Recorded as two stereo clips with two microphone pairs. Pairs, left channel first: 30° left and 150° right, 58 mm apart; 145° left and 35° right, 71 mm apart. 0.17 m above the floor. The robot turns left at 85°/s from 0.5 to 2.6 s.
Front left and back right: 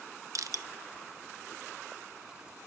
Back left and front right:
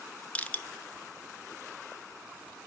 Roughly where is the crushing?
Behind right.